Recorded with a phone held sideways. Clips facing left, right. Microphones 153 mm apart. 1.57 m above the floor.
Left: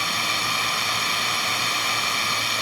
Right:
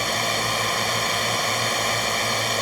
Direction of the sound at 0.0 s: 45° right (ahead or behind).